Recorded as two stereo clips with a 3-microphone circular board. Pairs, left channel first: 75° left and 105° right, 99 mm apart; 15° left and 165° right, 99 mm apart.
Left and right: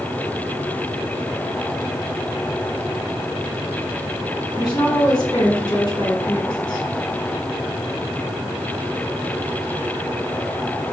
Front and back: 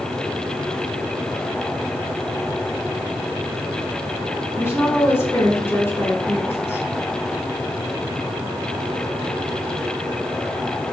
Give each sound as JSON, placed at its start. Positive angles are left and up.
{"t": 4.5, "sound": "a woman speaking", "azimuth_deg": 70, "distance_m": 1.7}